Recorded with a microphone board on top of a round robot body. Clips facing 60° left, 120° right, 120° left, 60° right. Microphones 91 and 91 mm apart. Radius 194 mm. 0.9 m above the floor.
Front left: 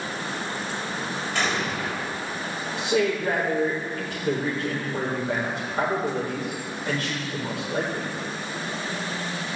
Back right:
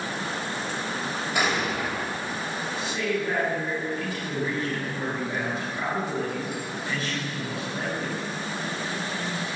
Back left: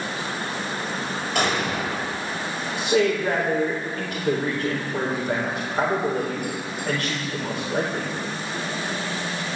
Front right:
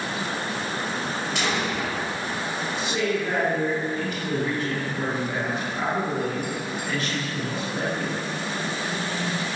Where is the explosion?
160° left, 3.5 m.